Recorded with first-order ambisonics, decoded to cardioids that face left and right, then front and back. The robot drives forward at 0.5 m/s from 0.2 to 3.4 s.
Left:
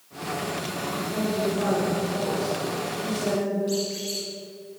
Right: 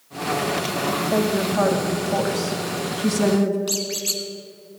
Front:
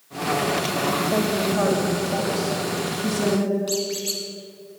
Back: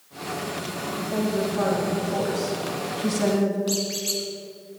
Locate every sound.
0.9 s a woman speaking: 65° right, 1.8 m; by 3.6 s 105° right, 1.7 m
3.7 s a squeak: 100° right, 1.4 m